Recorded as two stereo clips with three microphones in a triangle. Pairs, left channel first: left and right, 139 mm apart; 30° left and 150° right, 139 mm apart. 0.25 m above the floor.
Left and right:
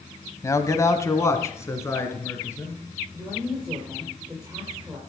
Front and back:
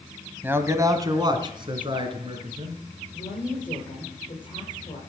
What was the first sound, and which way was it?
A man speaking, 140° left.